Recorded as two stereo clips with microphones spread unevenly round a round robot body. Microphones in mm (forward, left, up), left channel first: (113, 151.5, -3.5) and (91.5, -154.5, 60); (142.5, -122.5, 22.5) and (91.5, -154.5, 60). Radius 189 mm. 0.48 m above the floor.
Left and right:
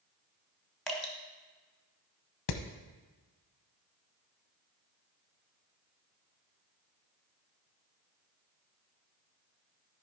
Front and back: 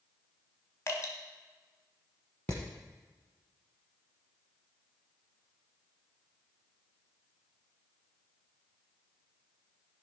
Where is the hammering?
120° left, 0.8 m.